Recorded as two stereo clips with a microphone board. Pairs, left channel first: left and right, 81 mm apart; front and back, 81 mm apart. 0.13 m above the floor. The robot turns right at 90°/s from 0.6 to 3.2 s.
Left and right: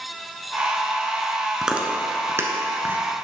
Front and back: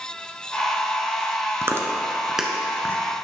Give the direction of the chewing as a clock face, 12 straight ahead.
6 o'clock.